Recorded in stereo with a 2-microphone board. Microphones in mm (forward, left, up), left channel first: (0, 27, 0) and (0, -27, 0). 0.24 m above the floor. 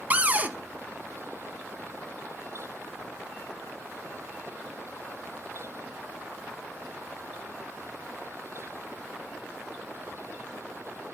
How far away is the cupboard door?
About 0.7 m.